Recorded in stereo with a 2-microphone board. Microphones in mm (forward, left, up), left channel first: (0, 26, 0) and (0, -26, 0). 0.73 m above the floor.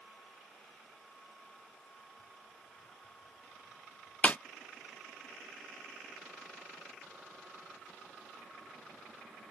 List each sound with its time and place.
4.2 s a snare drum: 30° left (ahead or behind)